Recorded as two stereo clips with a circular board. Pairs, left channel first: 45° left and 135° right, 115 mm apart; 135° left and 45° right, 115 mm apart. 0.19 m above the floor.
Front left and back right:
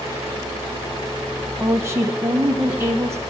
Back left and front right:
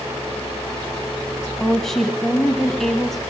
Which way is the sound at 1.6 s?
140° right.